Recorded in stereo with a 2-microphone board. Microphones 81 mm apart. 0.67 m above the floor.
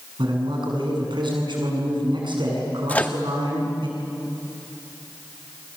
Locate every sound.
0.2 s a man speaking: 75° right (ahead or behind), 7.5 m
2.9 s a microwave: 20° left (ahead or behind), 0.9 m